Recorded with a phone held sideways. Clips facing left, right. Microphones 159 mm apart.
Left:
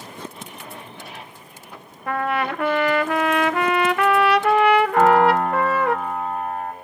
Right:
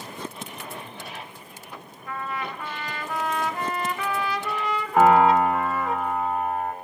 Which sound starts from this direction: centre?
A piano, at 5.0 s.